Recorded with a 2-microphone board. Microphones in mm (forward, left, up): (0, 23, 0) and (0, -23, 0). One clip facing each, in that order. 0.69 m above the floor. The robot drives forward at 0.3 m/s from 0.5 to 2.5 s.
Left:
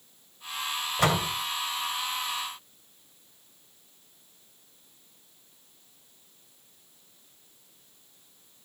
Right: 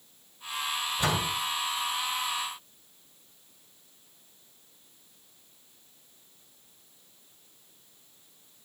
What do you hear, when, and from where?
1.0 s a door slam: 80° left, 2.5 m